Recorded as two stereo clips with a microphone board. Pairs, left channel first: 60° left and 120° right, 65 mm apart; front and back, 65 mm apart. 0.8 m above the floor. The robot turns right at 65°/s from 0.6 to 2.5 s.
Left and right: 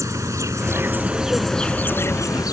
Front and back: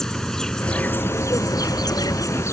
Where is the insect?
80° right; by 2.5 s 40° left.